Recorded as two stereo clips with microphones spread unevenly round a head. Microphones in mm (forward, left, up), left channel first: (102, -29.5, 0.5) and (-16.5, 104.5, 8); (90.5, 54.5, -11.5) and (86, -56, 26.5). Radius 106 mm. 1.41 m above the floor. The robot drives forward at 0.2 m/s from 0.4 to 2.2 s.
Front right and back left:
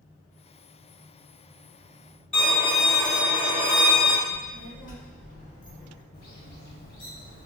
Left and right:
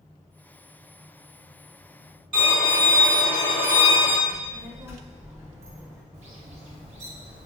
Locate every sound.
2.3 s a violin: 135° right, 1.5 m
4.3 s a child speaking: 75° right, 0.5 m
6.1 s a bird: 70° right, 0.7 m